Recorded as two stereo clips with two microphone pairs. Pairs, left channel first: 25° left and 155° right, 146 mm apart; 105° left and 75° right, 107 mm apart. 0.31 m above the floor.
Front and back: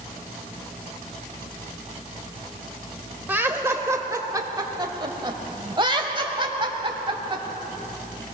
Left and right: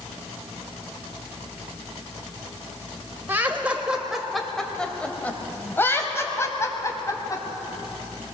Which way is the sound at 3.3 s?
100° right.